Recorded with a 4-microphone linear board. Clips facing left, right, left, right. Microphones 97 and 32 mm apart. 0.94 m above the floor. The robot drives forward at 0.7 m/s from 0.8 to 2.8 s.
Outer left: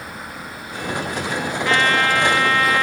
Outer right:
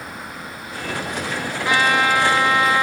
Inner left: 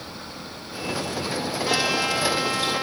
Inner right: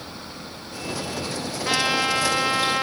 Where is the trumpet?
15° right (ahead or behind); by 2.8 s 20° right (ahead or behind).